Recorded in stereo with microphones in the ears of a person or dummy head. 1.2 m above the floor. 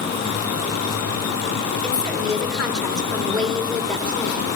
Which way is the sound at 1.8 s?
10° left (ahead or behind).